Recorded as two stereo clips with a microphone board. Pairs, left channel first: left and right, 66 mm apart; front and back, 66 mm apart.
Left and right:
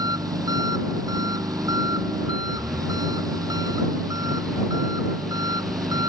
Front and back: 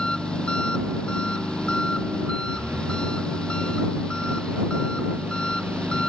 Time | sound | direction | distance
0.0 | an engine running | 75° right | ?